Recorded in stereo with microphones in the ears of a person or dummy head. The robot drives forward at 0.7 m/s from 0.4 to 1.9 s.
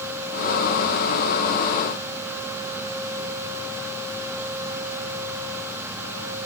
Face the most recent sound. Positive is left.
No sound to turn to.